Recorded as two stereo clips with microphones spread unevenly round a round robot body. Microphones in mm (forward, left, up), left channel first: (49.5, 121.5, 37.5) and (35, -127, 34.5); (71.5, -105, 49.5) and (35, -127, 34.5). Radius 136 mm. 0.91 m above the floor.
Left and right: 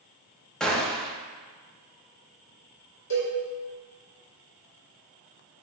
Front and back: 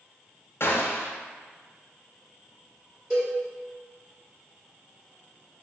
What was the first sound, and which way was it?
A gunshot, straight ahead.